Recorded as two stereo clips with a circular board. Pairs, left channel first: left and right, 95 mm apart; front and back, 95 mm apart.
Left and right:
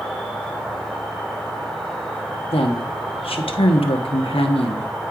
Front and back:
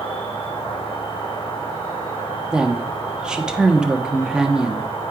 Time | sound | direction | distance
0.0 | an insect | 5° left | 3 m
2.5 | a woman speaking | 100° left | 1.1 m